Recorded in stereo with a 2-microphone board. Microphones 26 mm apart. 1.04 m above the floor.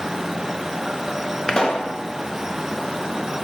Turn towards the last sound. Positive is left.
turn(degrees=30)  # may be behind; listen again after turning